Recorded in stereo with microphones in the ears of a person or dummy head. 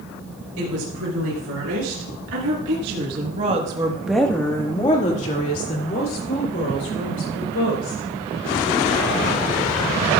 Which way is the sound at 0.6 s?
90° right.